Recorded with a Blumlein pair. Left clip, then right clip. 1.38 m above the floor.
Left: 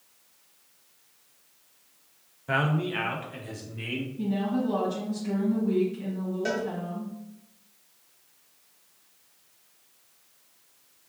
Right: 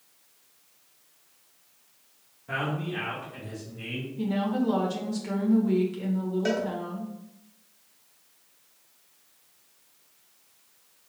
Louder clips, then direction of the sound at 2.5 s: Left 4 dB; 65° left.